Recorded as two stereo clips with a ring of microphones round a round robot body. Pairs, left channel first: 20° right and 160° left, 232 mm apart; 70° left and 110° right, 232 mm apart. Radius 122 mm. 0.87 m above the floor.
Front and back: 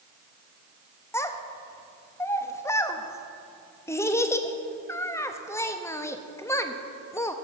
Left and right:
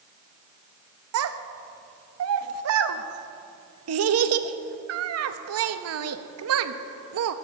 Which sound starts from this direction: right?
A child speaking, at 1.1 s.